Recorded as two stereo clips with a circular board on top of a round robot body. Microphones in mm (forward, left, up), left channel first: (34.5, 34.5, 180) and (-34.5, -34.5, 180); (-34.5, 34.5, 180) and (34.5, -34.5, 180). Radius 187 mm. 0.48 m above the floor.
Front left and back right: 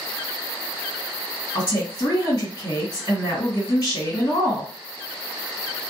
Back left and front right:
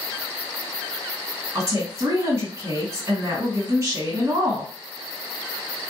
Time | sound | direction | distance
1.6 | a woman speaking | 10° left | 1.8 m